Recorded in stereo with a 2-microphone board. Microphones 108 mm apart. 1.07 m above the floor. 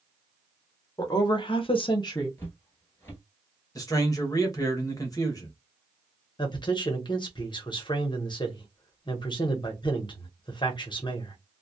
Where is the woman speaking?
35° left (ahead or behind), 0.9 m; by 2.3 s 30° left (ahead or behind), 0.8 m.